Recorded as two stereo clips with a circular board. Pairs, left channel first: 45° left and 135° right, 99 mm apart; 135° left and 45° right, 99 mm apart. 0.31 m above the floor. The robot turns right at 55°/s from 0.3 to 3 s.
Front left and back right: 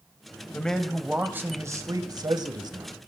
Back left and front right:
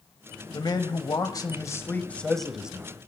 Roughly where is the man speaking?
Behind left.